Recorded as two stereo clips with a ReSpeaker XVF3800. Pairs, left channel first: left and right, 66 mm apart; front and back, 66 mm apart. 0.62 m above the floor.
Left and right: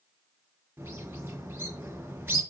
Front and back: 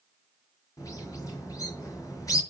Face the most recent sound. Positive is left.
turn(degrees=-35)